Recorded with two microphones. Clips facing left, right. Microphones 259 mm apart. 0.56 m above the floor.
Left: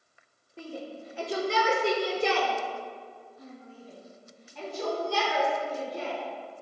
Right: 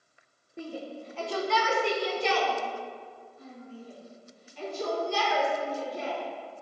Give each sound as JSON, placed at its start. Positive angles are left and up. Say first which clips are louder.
{"t": 0.6, "sound": "a shout", "louder": "right 1 dB", "side_deg": -15, "distance_m": 1.1}